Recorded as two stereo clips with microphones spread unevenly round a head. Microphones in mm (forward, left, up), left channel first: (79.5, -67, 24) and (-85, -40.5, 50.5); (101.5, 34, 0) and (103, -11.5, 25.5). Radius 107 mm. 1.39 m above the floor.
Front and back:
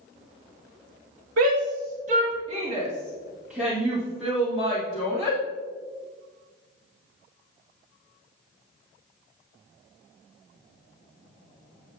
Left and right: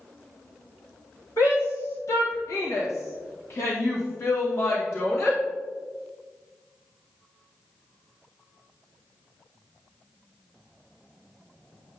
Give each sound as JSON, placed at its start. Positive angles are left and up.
{"t": 1.4, "sound": "a shout", "azimuth_deg": 145, "distance_m": 0.9}